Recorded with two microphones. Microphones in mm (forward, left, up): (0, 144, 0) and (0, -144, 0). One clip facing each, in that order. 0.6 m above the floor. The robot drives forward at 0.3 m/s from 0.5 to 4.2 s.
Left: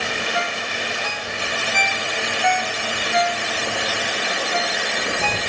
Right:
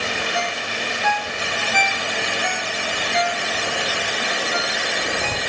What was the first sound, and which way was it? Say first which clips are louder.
A ringtone: even; 55° right (ahead or behind).